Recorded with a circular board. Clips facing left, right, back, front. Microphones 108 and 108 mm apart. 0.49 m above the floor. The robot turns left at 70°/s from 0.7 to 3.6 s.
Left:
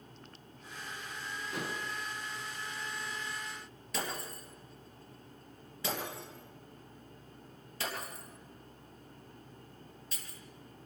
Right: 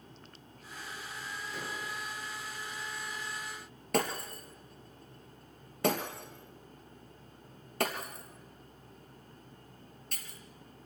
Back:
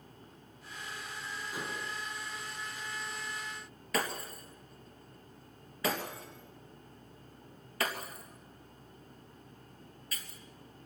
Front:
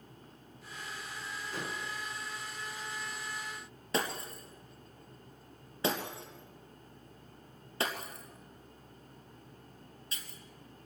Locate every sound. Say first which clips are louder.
1.5 s dishes clattering: left 3 dB, front 1 dB; 105° left, 3.5 m; by 1.9 s 80° left, 3.5 m
3.9 s breaking glass: right 7 dB, even; 60° right, 3 m